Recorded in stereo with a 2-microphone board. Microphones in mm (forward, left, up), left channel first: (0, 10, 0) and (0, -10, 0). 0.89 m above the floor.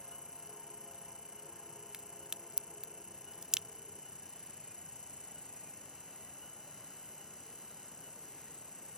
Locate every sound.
0.0 s an insect: 65° left (ahead or behind)
1.9 s a crack: 35° right (ahead or behind)